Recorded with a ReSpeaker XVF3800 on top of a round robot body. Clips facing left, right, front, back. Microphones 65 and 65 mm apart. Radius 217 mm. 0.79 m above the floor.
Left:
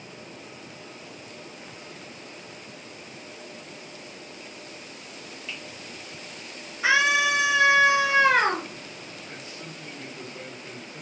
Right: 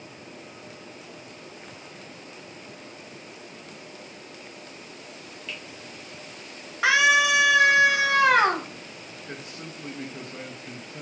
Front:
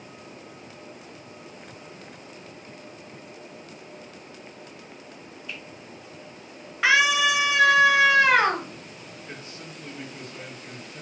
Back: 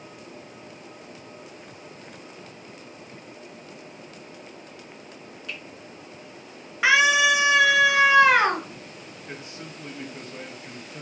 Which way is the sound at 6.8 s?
90° right.